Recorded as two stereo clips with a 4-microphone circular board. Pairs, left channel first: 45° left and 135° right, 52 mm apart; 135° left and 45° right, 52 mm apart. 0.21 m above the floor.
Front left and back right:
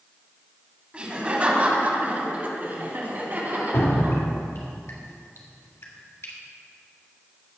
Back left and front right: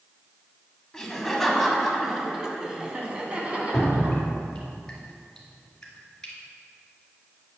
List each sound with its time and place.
0.9 s laughter: 160° right, 1.7 m; by 4.2 s 95° right, 2.5 m
3.7 s dripping: 55° left, 2.5 m